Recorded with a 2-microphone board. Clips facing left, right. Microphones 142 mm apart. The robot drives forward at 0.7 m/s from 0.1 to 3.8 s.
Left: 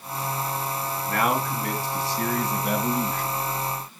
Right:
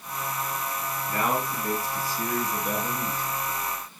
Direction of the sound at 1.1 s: 65° left (ahead or behind).